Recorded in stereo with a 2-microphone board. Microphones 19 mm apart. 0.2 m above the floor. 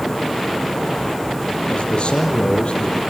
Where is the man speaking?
65° left (ahead or behind), 5 m.